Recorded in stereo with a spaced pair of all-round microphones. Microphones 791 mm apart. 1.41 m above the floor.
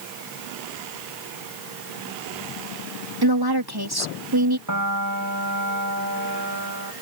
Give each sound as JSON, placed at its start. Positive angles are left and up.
{"t": 3.2, "sound": "a woman speaking", "side_deg": -30}
{"t": 4.7, "sound": "a piano", "side_deg": -25}